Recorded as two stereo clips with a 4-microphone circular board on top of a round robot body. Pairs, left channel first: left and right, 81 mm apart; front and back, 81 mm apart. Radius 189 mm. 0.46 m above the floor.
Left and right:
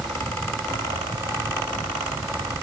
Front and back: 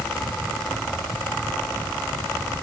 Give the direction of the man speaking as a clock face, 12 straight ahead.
No man speaking in this recording.